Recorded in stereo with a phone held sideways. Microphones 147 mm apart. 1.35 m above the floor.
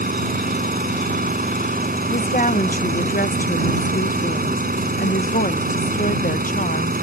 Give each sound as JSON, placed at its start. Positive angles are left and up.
{"t": 0.0, "sound": "an engine running", "side_deg": -85}
{"t": 2.1, "sound": "a woman speaking", "side_deg": 70}